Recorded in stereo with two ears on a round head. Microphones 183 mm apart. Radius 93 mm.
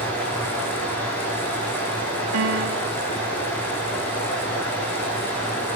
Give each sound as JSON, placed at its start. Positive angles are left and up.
{"t": 0.0, "sound": "running water", "side_deg": 5, "distance_m": 9.5}
{"t": 2.3, "sound": "a piano", "side_deg": -75, "distance_m": 0.7}